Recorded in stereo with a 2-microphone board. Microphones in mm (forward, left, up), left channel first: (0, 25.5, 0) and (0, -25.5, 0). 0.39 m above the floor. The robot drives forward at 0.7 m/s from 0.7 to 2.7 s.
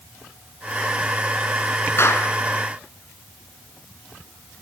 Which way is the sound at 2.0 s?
55° left (ahead or behind).